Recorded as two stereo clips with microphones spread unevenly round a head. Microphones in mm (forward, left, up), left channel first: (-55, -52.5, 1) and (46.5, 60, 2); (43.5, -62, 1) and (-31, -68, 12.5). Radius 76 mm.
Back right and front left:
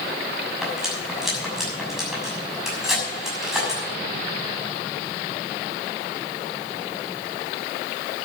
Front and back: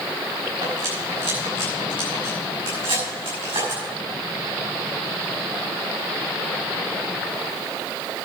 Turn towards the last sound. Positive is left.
turn(degrees=135)